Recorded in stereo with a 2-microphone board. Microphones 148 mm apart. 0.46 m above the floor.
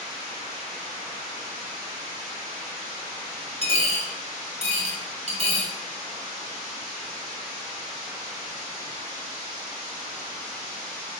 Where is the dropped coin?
50° right (ahead or behind), 1.1 m.